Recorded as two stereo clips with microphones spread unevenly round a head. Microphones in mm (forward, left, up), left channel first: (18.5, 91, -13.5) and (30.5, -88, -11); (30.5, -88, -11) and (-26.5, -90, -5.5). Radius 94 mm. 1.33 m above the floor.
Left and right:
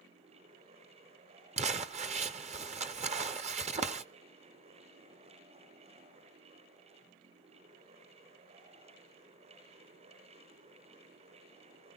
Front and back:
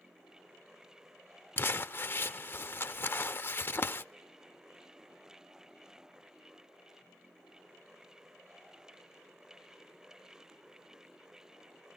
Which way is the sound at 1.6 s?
40° right.